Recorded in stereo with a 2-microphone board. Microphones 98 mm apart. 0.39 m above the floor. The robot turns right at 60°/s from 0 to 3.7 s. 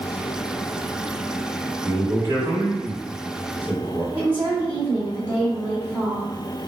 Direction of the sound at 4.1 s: 20° right (ahead or behind).